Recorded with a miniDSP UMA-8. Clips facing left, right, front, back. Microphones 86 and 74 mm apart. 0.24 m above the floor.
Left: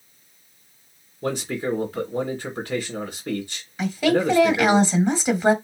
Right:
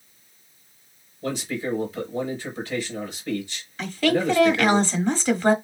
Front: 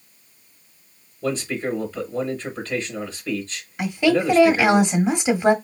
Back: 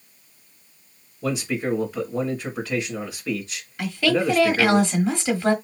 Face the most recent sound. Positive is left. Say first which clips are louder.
# left 2 dB, front 2 dB
turn(degrees=40)